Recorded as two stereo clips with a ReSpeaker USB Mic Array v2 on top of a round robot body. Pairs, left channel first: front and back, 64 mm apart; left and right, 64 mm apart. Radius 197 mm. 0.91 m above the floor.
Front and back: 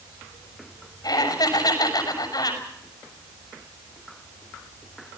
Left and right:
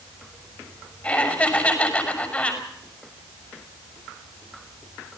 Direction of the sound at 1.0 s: 20° left.